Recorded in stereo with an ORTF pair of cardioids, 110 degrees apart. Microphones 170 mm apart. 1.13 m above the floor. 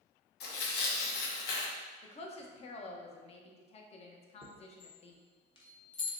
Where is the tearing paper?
70° left, 0.9 m.